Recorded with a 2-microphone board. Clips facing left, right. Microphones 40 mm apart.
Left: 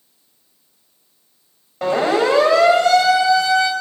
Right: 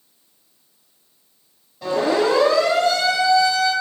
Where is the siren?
70° left (ahead or behind), 8 m; by 3.7 s 80° left, 7.5 m.